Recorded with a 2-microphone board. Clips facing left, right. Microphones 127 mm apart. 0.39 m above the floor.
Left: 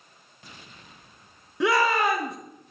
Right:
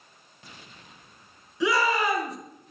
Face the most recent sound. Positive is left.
turn(degrees=60)  # may be behind; listen again after turning